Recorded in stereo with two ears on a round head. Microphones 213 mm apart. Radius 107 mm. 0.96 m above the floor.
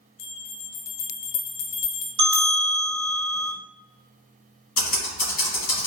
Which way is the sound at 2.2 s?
45° right (ahead or behind).